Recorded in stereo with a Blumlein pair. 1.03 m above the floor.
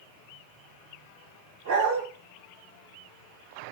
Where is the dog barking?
60° right, 3 m.